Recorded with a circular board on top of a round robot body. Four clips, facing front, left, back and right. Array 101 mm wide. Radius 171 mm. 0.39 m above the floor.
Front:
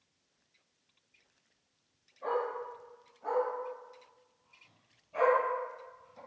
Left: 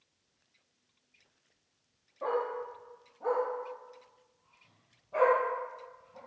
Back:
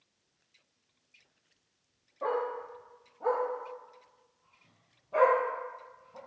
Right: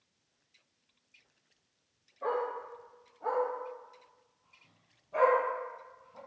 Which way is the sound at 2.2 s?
150° left.